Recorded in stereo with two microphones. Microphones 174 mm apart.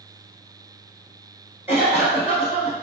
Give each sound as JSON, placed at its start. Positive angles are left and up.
{"t": 1.7, "sound": "a cough", "side_deg": -15, "distance_m": 1.8}